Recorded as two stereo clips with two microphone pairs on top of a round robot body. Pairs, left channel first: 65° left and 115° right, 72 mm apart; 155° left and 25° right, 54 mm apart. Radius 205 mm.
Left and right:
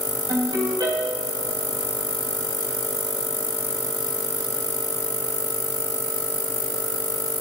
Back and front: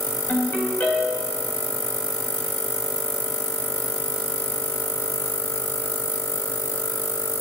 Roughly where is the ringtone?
Behind right.